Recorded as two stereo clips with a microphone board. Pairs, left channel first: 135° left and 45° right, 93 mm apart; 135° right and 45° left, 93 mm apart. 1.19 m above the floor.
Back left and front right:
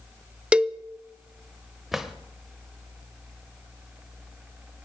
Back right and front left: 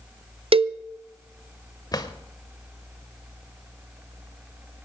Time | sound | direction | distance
0.5 | a cowbell | 35° left | 0.6 m
1.9 | a drawer | 130° right | 1.2 m